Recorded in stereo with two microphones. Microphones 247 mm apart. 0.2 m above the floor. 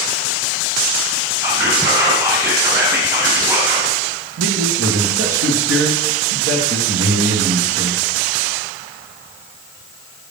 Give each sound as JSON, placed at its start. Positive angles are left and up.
{"t": 1.4, "sound": "whispering", "side_deg": -10, "distance_m": 1.8}
{"t": 4.4, "sound": "a man speaking", "side_deg": -65, "distance_m": 3.5}